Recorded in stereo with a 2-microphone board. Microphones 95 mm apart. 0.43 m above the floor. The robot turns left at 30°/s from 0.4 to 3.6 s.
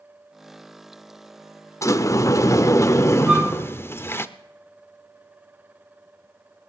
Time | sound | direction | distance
1.8 | a sliding door | 105° left | 0.6 m
3.3 | a flute | 10° right (ahead or behind) | 1.5 m